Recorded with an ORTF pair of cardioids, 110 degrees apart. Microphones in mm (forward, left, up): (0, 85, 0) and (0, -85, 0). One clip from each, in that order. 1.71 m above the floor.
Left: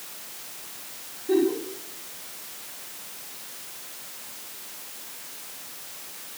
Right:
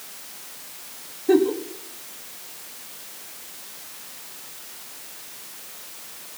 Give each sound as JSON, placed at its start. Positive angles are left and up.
{"t": 1.3, "sound": "a giggle", "azimuth_deg": -65, "distance_m": 4.0}